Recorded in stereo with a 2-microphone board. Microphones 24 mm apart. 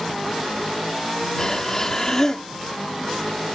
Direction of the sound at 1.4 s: 30° left (ahead or behind).